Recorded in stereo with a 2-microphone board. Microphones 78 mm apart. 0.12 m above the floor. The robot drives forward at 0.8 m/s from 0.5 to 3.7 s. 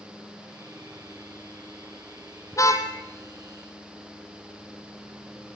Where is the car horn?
40° left (ahead or behind), 2.5 m.